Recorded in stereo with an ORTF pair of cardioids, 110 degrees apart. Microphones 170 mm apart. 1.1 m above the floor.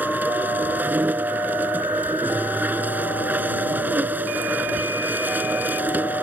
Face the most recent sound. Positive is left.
turn(degrees=-10)